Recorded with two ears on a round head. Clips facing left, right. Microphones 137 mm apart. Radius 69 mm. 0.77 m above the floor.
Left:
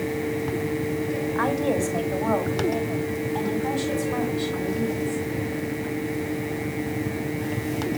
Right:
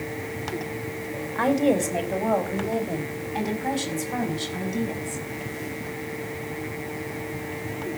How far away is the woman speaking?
About 3 m.